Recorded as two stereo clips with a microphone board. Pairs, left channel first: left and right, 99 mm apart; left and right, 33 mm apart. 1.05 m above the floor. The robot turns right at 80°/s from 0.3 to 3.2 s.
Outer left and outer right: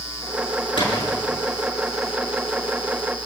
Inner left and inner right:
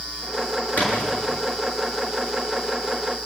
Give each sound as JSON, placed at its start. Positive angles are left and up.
{"t": 0.8, "sound": "a splash", "side_deg": 55, "distance_m": 6.5}